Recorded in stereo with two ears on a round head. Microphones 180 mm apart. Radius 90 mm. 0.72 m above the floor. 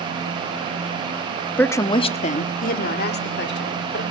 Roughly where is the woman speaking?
Centre.